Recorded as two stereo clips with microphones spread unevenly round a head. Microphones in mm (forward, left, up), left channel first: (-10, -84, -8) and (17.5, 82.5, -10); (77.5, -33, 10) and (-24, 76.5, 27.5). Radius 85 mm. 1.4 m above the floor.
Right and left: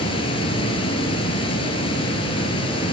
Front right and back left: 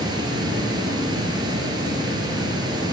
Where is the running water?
160° right, 5 m.